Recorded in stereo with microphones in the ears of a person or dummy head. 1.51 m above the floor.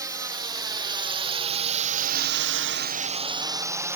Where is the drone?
20° right (ahead or behind); by 4.0 s 10° right (ahead or behind).